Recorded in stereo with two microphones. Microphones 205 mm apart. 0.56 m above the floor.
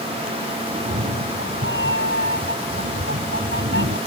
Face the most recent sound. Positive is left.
turn(degrees=-65)  # may be behind; listen again after turning